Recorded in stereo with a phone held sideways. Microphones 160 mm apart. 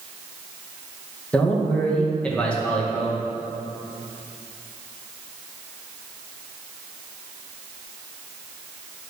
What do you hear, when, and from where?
1.3 s a man speaking: 5° left (ahead or behind), 2 m